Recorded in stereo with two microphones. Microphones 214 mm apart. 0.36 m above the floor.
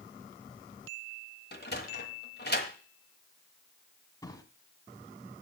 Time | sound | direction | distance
1.5 | a sliding door | 55° left (ahead or behind) | 1.3 m
4.2 | a drawer | 20° left (ahead or behind) | 1.3 m